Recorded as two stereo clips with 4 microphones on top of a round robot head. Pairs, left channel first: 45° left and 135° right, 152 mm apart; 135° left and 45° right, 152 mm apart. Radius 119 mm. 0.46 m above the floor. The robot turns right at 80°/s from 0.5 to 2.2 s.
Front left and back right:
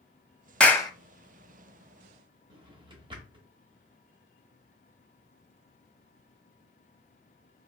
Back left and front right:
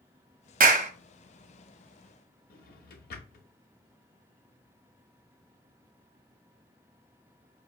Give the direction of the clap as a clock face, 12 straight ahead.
1 o'clock.